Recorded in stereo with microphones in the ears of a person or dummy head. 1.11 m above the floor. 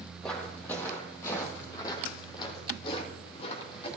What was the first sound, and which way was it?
Footsteps, 5° left (ahead or behind).